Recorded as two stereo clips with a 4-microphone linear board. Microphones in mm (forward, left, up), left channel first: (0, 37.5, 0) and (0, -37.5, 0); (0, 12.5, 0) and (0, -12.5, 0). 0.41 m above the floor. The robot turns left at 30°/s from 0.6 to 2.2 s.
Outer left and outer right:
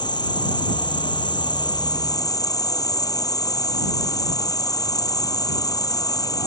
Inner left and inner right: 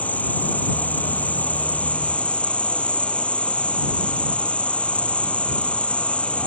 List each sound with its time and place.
0.0 s an insect: 105° left; by 6.5 s 55° left